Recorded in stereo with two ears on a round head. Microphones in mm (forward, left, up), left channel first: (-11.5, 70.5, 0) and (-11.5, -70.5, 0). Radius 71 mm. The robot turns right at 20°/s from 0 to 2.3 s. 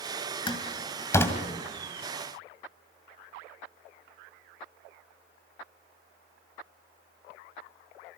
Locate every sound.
0.5 s a door slam: 30° left (ahead or behind), 2.5 m; by 1.4 s 15° left (ahead or behind), 2.5 m